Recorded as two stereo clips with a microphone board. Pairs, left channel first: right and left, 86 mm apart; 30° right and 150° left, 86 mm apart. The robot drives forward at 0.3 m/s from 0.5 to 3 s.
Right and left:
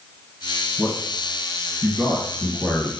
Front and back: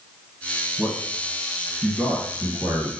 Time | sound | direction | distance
0.8 | a man speaking | 150° right | 1.6 m